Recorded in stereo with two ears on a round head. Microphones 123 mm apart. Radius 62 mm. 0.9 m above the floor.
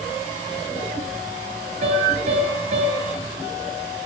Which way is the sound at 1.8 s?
50° right (ahead or behind).